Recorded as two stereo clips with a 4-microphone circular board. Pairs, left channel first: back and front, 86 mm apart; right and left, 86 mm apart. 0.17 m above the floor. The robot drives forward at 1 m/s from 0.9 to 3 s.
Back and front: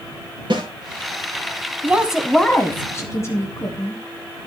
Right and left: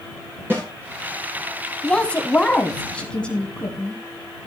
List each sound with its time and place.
0.5 s a snare drum: 25° left, 6 m
1.8 s a woman speaking: 30° right, 1.2 m; by 4.0 s 160° right, 1.4 m